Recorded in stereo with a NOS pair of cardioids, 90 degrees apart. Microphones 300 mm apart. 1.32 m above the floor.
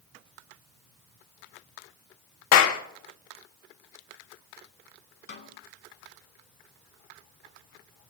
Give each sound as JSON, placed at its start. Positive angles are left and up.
{"t": 2.5, "sound": "a clap", "azimuth_deg": 70, "distance_m": 1.5}
{"t": 5.3, "sound": "a snare drum", "azimuth_deg": 40, "distance_m": 2.5}